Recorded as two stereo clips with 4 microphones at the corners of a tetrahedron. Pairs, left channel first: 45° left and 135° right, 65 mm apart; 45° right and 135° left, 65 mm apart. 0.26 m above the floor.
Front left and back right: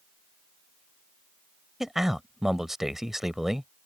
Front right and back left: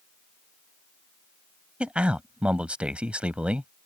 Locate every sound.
1.8 s a man speaking: 145° left